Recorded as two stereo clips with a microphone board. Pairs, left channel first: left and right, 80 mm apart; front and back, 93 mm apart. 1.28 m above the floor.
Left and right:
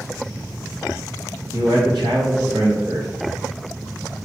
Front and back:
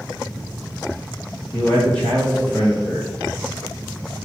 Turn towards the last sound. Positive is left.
turn(degrees=-75)